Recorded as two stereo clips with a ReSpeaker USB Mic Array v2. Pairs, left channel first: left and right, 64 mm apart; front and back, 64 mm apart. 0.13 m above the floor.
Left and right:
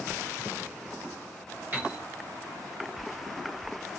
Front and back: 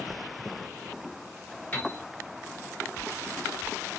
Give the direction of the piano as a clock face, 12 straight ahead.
2 o'clock.